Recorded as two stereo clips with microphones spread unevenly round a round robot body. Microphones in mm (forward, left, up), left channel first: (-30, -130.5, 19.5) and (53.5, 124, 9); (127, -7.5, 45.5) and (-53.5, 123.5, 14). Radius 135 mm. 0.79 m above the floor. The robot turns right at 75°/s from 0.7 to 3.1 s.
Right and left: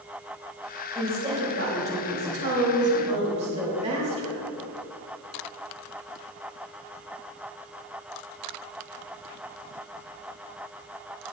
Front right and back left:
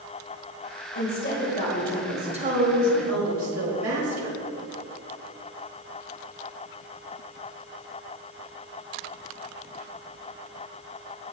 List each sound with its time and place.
0.9 s a woman speaking: 20° right, 4.5 m; by 4.4 s 140° left, 4.5 m